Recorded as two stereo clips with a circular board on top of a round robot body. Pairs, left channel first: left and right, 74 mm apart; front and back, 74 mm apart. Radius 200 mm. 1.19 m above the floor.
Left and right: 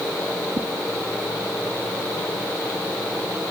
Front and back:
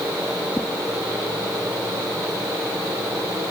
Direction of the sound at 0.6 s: 70° right.